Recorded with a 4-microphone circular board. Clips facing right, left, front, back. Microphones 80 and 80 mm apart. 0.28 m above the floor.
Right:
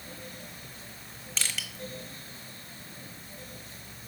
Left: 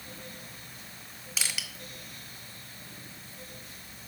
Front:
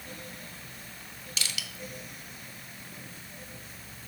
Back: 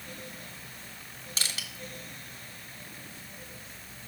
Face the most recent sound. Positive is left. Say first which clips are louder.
# even, even
turn(degrees=170)